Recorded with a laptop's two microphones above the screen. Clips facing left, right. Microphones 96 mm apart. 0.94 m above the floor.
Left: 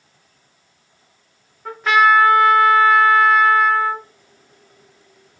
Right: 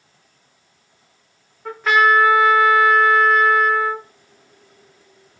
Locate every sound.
1.6 s a trumpet: centre (ahead or behind), 0.8 m